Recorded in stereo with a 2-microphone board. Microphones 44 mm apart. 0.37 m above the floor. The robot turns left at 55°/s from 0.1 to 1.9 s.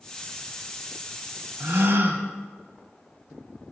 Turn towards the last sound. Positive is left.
turn(degrees=-55)  # may be behind; listen again after turning